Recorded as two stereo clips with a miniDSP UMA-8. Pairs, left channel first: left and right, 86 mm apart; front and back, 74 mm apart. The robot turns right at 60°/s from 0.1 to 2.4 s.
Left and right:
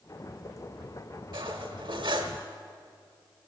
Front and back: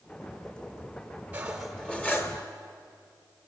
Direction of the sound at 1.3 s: 110° right.